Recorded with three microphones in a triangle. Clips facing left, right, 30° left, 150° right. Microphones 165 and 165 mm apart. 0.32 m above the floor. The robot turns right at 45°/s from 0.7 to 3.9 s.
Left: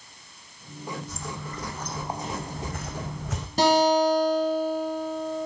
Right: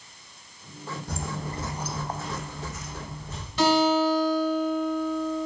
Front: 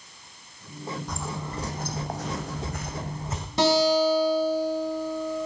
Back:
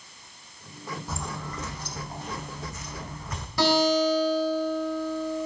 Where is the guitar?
80° left, 1.5 m; by 5.5 s 95° left, 1.5 m.